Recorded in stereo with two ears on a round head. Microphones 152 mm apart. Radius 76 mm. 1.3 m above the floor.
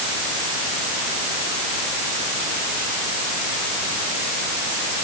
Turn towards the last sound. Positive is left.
No sound to turn to.